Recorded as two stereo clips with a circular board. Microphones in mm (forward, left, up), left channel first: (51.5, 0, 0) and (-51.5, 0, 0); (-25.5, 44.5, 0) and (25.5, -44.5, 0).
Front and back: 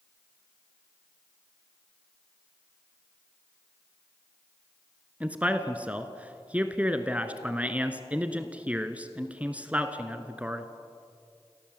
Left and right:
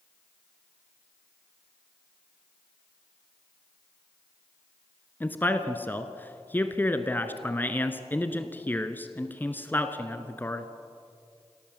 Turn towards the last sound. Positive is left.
turn(degrees=135)